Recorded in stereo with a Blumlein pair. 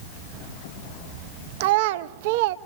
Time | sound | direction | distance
1.6 | a child speaking | 50° right | 0.6 m